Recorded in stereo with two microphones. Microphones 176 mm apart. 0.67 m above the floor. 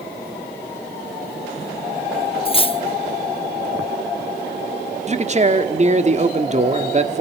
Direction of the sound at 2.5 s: 30° left (ahead or behind).